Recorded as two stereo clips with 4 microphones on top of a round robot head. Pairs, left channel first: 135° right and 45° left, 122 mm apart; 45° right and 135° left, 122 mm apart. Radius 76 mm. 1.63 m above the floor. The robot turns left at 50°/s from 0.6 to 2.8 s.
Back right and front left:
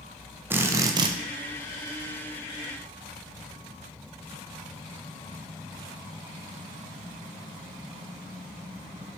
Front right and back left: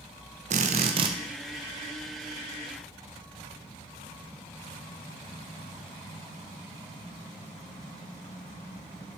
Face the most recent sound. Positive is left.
turn(degrees=5)